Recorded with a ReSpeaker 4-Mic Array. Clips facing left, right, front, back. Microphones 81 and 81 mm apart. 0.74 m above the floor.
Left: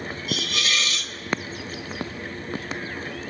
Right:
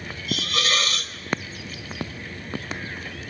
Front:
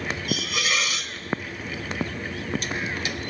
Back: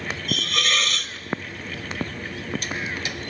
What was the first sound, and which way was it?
A hiss, 80° right.